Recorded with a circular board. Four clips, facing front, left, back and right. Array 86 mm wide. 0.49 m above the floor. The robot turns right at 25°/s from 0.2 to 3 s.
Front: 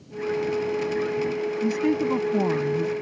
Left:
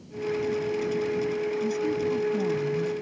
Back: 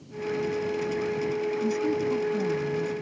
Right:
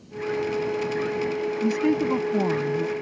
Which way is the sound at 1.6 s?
65° right.